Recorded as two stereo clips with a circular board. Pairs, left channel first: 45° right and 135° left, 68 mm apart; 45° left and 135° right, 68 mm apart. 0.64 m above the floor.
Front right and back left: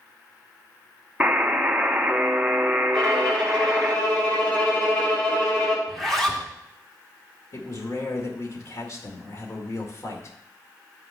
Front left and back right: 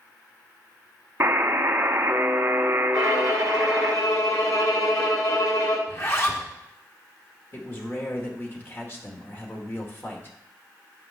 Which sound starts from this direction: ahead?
A man speaking, at 7.5 s.